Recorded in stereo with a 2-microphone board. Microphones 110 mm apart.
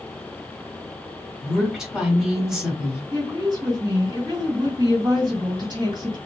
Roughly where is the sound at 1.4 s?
Centre.